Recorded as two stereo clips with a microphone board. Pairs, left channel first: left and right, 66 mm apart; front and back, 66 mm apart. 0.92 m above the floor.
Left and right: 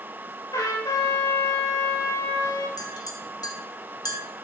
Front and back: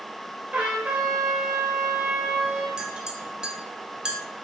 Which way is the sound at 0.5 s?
110° left.